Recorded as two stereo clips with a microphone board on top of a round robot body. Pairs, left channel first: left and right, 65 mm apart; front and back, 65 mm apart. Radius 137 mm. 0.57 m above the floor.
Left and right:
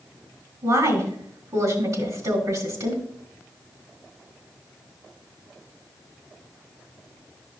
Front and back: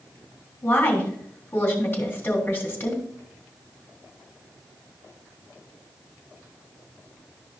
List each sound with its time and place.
0.6 s a woman speaking: 60° right, 3 m